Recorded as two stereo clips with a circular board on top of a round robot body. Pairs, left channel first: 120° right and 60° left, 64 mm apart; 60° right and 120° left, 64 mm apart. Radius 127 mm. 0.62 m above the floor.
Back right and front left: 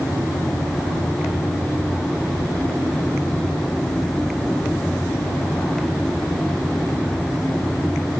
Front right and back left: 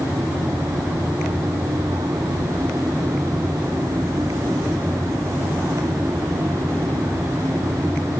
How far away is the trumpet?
No trumpet in this recording.